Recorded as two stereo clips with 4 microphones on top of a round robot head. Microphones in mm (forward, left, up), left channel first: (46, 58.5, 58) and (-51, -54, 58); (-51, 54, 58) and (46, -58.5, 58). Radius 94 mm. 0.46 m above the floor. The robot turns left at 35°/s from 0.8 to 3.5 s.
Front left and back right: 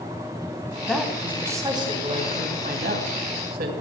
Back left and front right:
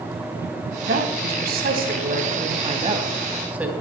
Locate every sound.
0.8 s a woman speaking: 35° right, 3.5 m; by 3.7 s 130° right, 3.5 m